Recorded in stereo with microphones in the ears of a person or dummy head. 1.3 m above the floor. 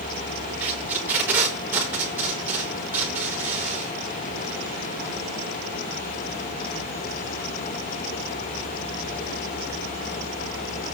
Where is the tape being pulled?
10° right (ahead or behind), 5.5 m.